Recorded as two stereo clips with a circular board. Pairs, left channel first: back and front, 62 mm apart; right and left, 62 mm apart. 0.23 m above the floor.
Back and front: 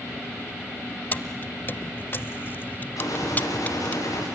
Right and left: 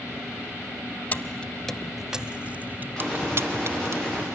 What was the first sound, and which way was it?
Keys jangling, 135° right.